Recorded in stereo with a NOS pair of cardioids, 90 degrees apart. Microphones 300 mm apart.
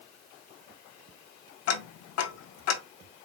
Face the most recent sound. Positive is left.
turn(degrees=55)